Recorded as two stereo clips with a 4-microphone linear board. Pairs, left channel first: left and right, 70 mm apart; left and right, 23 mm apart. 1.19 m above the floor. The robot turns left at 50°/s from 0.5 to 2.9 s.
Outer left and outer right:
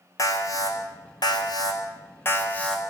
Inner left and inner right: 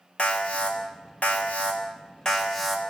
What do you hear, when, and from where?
0.2 s an alarm: 125° left, 4 m; by 2.8 s 10° left, 4 m